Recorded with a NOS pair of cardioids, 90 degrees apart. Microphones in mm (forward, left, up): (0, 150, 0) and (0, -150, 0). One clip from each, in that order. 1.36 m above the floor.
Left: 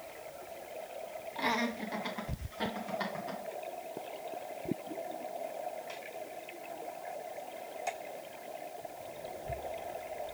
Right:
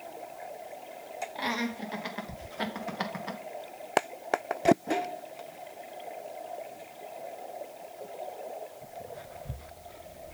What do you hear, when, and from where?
1.4 s laughter: 15° right, 2.5 m; by 3.4 s 60° right, 2 m